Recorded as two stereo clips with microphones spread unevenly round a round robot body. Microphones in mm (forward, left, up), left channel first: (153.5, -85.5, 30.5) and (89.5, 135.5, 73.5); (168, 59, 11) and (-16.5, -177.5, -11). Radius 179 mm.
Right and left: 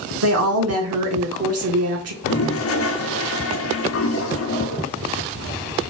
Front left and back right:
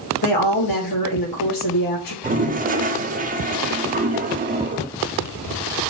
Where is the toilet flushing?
65° right, 0.8 m.